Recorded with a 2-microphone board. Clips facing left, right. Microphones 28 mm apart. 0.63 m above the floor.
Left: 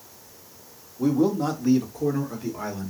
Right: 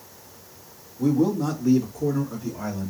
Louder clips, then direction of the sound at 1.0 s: Even; 50° left (ahead or behind).